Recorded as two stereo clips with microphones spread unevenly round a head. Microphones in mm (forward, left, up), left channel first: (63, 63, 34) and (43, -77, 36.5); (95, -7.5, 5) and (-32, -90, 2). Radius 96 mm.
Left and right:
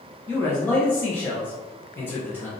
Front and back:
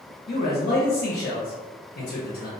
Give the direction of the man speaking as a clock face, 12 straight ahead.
12 o'clock.